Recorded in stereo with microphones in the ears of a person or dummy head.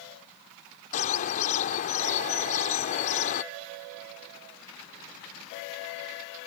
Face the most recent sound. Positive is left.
turn(degrees=35)  # may be behind; listen again after turning